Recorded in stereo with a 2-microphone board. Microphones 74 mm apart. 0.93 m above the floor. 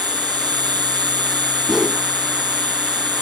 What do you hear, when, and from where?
0.0 s an insect: 85° right
1.7 s a whoosh: 5° right (ahead or behind)